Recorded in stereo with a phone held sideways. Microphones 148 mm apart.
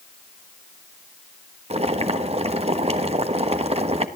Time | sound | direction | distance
1.7 | boiling | 45° right (ahead or behind) | 1.3 m